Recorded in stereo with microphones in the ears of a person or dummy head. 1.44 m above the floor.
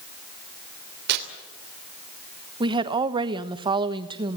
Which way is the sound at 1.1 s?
60° right (ahead or behind).